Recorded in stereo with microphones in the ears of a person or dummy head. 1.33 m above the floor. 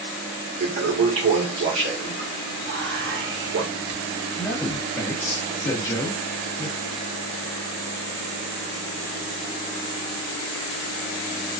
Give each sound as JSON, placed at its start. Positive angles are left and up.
{"t": 0.6, "sound": "a toilet flushing", "side_deg": -65, "distance_m": 1.8}
{"t": 2.6, "sound": "whispering", "side_deg": -55, "distance_m": 0.9}
{"t": 4.4, "sound": "a man speaking", "side_deg": 10, "distance_m": 1.2}